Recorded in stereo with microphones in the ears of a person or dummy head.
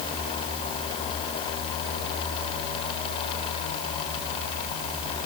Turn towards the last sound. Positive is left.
No sound to turn to.